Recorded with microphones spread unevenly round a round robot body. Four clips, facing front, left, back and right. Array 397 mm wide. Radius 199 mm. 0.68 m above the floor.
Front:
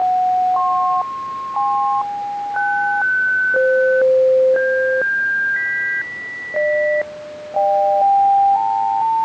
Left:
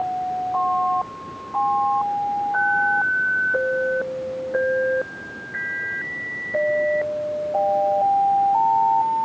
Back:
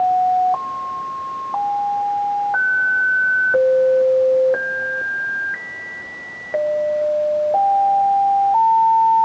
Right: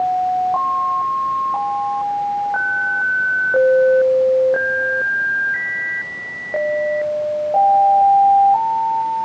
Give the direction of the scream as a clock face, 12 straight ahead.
No scream in this recording.